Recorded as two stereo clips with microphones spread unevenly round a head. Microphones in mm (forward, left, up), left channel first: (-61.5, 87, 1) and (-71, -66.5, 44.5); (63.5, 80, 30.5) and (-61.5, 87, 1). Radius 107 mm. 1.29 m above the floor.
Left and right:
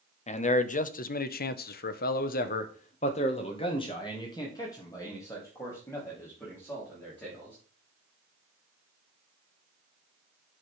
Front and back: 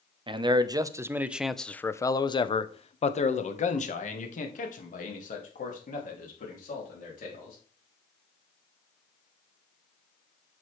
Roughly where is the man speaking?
Behind left.